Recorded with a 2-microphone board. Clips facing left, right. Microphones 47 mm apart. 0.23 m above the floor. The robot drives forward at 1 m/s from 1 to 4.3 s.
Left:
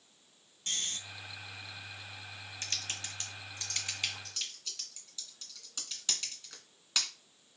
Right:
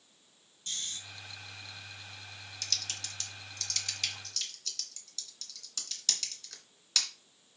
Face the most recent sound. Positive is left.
turn(degrees=20)  # may be behind; listen again after turning